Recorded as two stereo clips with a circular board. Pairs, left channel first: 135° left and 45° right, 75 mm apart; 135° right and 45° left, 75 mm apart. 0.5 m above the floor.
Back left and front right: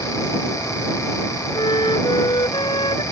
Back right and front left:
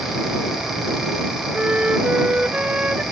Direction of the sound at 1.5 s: 120° left.